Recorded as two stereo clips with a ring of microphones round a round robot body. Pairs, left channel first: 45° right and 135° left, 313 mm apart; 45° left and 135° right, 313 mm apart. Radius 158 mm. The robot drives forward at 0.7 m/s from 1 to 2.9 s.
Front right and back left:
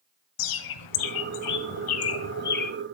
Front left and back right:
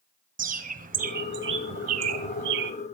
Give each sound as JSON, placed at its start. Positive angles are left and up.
{"t": 0.4, "sound": "a bird", "azimuth_deg": -70, "distance_m": 1.8}